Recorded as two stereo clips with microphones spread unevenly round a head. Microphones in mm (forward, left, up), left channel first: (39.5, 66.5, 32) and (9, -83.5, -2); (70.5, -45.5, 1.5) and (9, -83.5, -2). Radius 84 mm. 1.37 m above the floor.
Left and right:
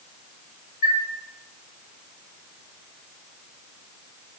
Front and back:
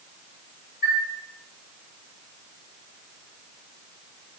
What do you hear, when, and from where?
0.8 s a chime: 125° left, 1.1 m